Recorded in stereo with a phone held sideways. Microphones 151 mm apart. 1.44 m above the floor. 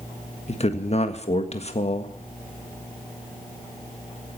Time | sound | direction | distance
0.5 | a man speaking | 45° left (ahead or behind) | 1.7 m